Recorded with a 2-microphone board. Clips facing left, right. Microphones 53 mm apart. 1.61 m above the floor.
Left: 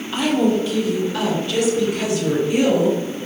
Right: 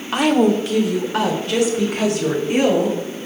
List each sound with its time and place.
0.1 s a woman speaking: 60° right (ahead or behind), 1.6 m; by 3.3 s 65° right (ahead or behind), 6 m